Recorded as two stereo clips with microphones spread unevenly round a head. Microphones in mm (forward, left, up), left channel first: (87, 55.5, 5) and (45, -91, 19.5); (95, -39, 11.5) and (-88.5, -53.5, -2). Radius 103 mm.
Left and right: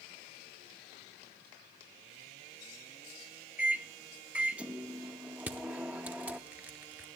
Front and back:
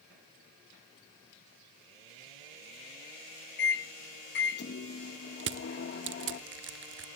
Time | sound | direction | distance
3.6 | a microwave | 20° right | 1.3 m
5.4 | crushing | 175° left | 0.8 m